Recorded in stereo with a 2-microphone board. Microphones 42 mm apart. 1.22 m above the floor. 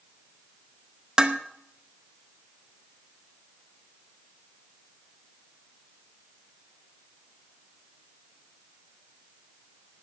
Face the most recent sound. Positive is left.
turn(degrees=-15)  # may be behind; listen again after turning